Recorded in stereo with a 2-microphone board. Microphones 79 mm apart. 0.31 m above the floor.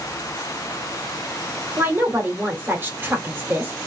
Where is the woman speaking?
25° right (ahead or behind), 1.5 m.